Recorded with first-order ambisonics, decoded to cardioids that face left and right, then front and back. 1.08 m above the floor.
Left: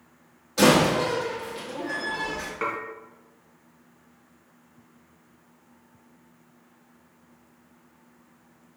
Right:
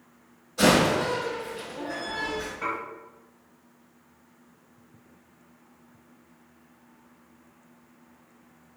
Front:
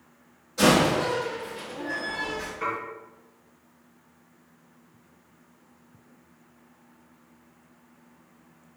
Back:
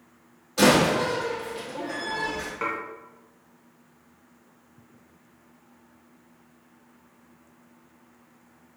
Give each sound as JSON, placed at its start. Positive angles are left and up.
{"t": 0.6, "sound": "a door slam", "azimuth_deg": 125, "distance_m": 1.7}
{"t": 2.6, "sound": "dishes clattering", "azimuth_deg": 120, "distance_m": 1.2}